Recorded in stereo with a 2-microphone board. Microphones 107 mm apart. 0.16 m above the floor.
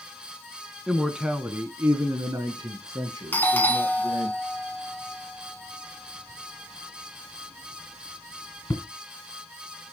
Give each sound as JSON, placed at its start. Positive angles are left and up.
{"t": 0.9, "sound": "a man speaking", "side_deg": 0, "distance_m": 1.2}
{"t": 3.3, "sound": "a doorbell", "side_deg": 20, "distance_m": 1.6}